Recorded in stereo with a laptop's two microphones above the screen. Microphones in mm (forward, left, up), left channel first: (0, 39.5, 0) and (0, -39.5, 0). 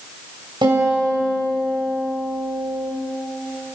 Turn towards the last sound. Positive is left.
turn(degrees=-70)  # may be behind; listen again after turning